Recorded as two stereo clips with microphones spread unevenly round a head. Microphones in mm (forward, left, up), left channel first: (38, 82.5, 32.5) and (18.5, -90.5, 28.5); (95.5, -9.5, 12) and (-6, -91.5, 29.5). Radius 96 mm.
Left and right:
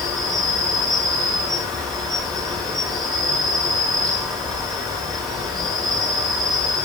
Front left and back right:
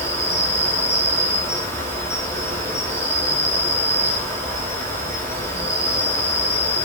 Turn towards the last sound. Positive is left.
turn(degrees=170)